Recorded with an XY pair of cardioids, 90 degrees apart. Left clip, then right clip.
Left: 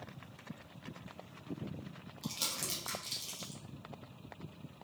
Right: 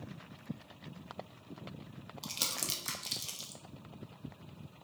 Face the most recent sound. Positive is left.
turn(degrees=-45)